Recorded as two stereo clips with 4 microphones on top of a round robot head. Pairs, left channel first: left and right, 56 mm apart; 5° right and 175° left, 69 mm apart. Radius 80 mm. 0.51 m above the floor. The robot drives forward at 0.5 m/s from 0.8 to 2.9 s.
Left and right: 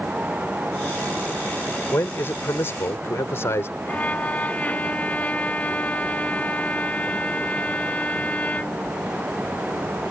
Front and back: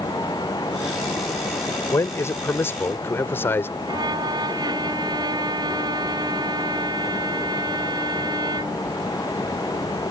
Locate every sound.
1.9 s a man speaking: 40° left; by 3.7 s 50° left
3.9 s a violin: 155° left